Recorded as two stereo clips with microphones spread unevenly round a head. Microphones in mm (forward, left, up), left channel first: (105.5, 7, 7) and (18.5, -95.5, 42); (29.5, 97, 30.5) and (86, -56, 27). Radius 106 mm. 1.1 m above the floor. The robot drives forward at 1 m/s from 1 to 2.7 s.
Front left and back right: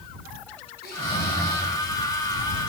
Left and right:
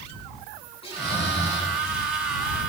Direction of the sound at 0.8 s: 55° left.